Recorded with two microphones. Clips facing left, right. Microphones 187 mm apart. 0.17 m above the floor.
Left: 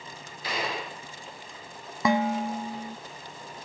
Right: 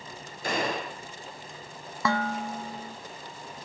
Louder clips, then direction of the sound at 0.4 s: Right 3 dB; 45° right (ahead or behind).